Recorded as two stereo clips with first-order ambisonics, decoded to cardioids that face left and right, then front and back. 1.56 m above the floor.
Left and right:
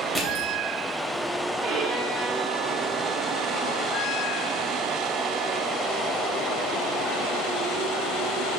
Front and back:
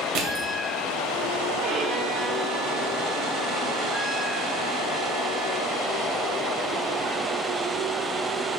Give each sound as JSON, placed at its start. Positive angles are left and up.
{"t": 0.1, "sound": "crushing", "azimuth_deg": 165, "distance_m": 1.9}
{"t": 1.6, "sound": "a violin", "azimuth_deg": -140, "distance_m": 1.9}